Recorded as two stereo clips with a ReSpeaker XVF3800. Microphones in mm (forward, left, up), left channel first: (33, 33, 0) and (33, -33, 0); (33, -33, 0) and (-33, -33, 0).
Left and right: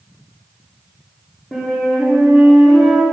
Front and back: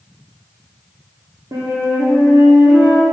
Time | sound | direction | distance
1.5 | a flute | 170° left | 2.5 m